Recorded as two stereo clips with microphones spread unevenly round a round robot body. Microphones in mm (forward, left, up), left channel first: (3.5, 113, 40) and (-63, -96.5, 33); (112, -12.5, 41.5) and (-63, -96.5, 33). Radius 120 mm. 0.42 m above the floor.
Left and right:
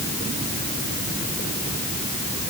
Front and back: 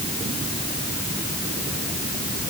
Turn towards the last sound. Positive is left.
No sound to turn to.